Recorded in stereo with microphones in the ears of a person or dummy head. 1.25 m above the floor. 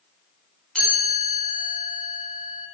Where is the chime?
5° left (ahead or behind), 5 m.